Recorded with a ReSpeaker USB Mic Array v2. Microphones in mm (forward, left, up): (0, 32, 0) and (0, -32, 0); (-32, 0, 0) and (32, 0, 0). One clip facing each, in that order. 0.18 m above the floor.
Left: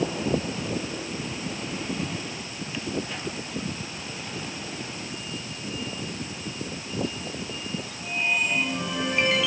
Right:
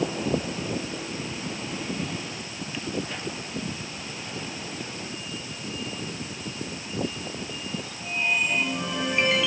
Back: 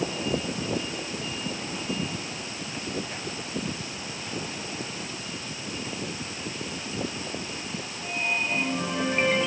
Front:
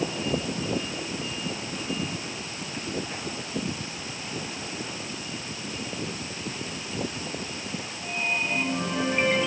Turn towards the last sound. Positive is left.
No sound to turn to.